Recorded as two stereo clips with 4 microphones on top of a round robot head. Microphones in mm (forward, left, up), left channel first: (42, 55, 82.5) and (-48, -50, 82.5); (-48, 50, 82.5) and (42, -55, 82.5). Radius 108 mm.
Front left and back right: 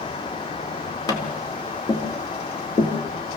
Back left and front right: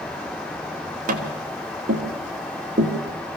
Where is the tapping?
15° right, 2.5 m.